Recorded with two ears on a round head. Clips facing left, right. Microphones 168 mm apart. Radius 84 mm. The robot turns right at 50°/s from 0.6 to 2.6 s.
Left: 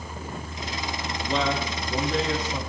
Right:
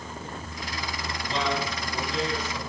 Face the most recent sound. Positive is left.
turn(degrees=130)